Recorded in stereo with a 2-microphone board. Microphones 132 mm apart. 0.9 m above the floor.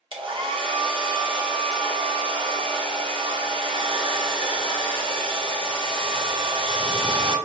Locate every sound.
0.1 s a hair dryer: 40° right (ahead or behind), 0.7 m